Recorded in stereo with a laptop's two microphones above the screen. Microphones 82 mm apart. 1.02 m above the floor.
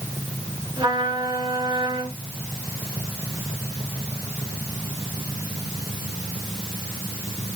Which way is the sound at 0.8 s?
70° right (ahead or behind).